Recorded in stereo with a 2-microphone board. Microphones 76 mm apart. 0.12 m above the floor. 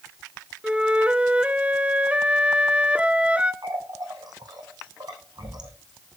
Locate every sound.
0.6 s a flute: 15° right (ahead or behind), 0.8 m
3.6 s a running tap: 60° right (ahead or behind), 4.5 m